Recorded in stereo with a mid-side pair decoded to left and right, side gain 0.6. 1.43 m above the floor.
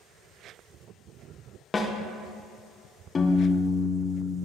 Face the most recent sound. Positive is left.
turn(degrees=30)